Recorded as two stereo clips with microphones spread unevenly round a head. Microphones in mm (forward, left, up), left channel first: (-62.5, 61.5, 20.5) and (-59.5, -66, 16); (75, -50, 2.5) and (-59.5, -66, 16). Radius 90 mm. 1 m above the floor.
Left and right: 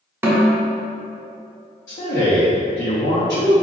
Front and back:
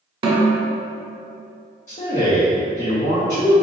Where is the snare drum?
155° right, 0.8 m.